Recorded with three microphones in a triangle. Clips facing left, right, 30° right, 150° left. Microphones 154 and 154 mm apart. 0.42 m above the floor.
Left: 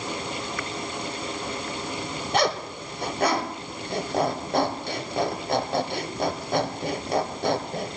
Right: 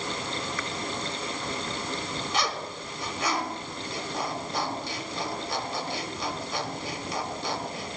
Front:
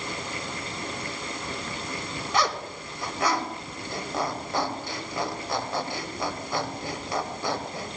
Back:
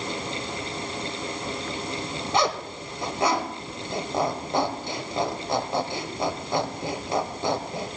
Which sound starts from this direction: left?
A zipper, at 2.3 s.